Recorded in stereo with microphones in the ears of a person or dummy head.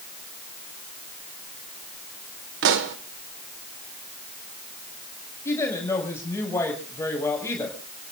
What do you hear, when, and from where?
2.6 s a pop: 65° right (ahead or behind), 1.5 m
5.5 s a woman speaking: 15° left (ahead or behind), 6 m